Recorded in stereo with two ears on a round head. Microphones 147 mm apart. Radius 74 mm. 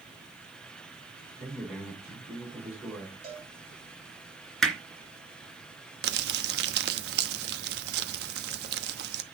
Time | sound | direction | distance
1.4 | a man speaking | 5° right (ahead or behind) | 5.5 m
3.2 | a cowbell | 40° right (ahead or behind) | 6.5 m
4.6 | hammering | centre (ahead or behind) | 2.5 m
6.0 | crumpling | 70° right (ahead or behind) | 1.1 m